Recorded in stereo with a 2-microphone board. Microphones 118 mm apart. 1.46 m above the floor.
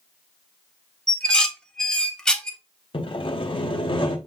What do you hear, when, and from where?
1.1 s dishes clattering: 5° left (ahead or behind), 0.5 m
2.9 s sawing: 45° left (ahead or behind), 0.6 m